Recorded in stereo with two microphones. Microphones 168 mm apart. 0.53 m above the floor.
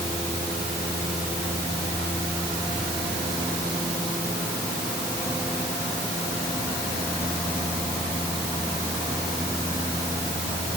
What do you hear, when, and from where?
Only background noise.